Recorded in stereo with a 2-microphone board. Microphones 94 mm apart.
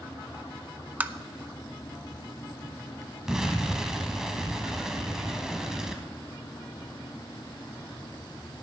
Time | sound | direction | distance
1.0 | tapping | 20° right (ahead or behind) | 0.5 m
3.3 | an explosion | 5° right (ahead or behind) | 1.4 m